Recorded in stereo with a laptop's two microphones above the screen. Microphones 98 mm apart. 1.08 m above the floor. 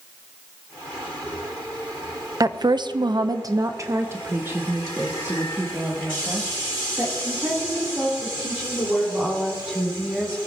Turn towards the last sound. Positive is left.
turn(degrees=-15)  # may be behind; listen again after turning